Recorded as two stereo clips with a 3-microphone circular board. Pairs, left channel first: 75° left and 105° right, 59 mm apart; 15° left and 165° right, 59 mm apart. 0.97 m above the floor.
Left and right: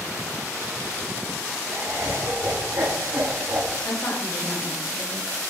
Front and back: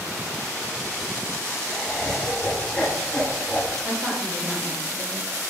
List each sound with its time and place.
1.7 s laughter: 85° right, 3 m
3.8 s a woman speaking: 145° left, 5.5 m